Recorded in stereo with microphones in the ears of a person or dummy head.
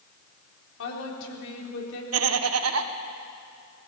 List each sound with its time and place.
0.8 s a woman speaking: 70° left (ahead or behind), 4 m
2.1 s laughter: 80° right, 1.5 m